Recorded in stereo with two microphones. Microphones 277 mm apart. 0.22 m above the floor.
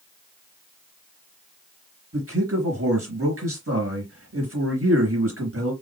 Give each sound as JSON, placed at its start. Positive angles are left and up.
{"t": 2.1, "sound": "a man speaking", "side_deg": -50, "distance_m": 3.0}